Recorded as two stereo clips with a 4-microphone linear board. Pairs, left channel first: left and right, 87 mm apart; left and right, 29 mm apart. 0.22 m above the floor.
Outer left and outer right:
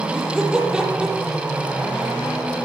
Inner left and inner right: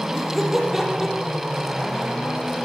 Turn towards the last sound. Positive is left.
turn(degrees=-10)  # may be behind; listen again after turning